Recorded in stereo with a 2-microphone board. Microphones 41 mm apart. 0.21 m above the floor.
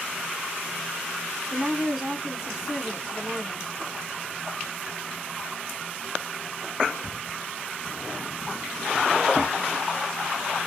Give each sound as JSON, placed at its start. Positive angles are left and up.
{"t": 1.5, "sound": "a woman speaking", "side_deg": -5, "distance_m": 1.8}